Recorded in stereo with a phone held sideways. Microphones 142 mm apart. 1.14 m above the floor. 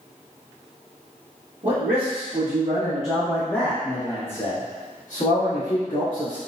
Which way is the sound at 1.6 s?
55° right (ahead or behind).